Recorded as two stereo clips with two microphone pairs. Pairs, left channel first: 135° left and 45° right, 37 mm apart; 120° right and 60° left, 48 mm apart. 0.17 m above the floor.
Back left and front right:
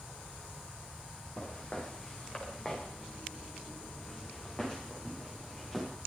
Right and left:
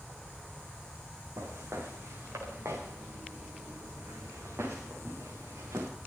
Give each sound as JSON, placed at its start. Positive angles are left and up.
{"t": 1.4, "sound": "footsteps", "azimuth_deg": 75, "distance_m": 5.5}